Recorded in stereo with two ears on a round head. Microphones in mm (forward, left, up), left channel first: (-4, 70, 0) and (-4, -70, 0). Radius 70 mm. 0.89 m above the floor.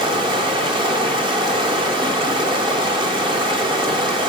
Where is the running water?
30° right (ahead or behind), 0.7 m.